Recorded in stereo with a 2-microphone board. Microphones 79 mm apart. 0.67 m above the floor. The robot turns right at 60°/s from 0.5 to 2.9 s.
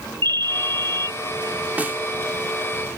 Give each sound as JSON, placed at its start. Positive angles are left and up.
{"t": 0.2, "sound": "a ringtone", "azimuth_deg": -100}
{"t": 1.8, "sound": "a snare drum", "side_deg": -20}